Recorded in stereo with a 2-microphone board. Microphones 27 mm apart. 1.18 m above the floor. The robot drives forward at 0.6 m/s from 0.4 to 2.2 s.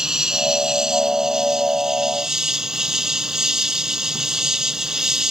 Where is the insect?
25° right (ahead or behind); by 5.3 s 20° right (ahead or behind).